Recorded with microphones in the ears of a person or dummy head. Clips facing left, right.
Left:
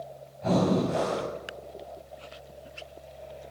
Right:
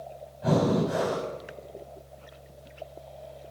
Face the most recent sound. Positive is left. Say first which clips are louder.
# even
turn(degrees=-10)  # may be behind; listen again after turning